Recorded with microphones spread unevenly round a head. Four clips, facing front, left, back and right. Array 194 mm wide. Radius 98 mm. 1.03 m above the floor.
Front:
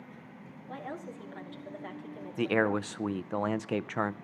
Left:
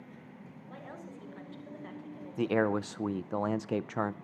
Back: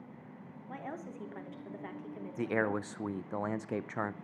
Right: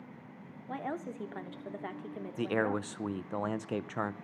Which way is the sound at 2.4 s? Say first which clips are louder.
Left 3 dB, front 5 dB; 35° left.